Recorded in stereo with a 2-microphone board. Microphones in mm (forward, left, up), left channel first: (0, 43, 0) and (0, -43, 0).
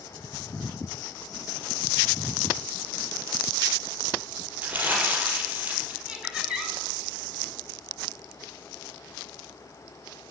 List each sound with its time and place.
4.6 s crumpling: 20° right (ahead or behind), 4.5 m
6.1 s laughter: 5° right (ahead or behind), 6 m